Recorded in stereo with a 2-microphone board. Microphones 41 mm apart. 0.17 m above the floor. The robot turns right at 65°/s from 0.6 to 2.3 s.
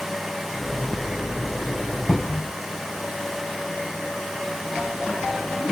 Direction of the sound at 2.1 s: 15° left (ahead or behind).